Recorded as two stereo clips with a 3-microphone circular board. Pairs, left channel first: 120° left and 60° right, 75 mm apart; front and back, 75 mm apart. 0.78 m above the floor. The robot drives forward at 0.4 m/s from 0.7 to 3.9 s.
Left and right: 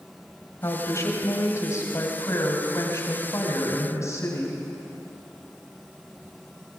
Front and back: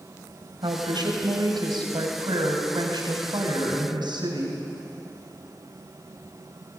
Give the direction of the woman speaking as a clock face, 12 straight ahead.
6 o'clock.